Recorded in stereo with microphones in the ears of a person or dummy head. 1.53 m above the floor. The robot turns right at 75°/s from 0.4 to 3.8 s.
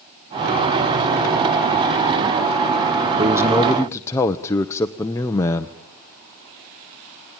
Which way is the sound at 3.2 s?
30° right.